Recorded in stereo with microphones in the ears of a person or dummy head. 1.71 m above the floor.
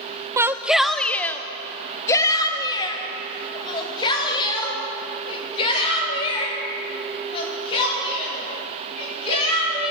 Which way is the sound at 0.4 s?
15° right (ahead or behind).